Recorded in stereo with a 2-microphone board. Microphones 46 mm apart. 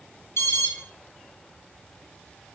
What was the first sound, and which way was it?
An alarm, 70° left (ahead or behind).